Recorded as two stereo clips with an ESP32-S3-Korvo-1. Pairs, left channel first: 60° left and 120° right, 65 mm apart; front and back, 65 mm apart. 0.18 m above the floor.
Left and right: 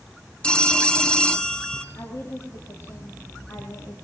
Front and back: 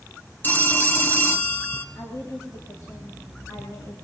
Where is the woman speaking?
30° left, 3.5 m.